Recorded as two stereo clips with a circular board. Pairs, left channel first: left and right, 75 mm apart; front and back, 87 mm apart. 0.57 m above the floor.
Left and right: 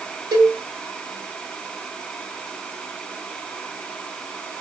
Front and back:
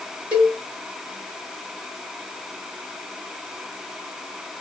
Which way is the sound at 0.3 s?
105° right.